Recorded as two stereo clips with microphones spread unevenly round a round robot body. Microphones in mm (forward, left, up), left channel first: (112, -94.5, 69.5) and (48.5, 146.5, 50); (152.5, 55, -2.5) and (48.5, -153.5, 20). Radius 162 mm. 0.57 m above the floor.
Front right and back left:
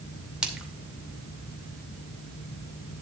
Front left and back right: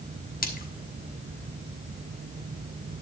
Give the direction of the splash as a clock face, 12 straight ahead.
11 o'clock.